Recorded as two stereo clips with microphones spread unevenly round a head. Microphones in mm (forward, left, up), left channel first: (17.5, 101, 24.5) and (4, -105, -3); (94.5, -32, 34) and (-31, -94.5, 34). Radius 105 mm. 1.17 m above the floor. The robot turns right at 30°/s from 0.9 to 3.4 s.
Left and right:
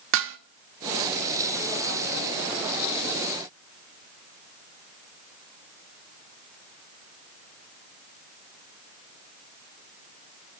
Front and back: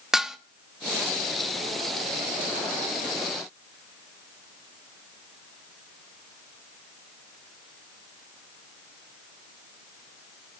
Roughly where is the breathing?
No breathing in this recording.